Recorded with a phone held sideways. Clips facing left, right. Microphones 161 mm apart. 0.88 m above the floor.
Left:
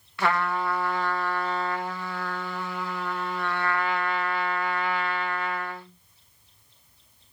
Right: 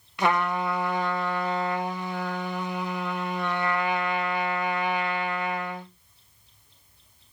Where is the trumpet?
20° right (ahead or behind), 0.5 m.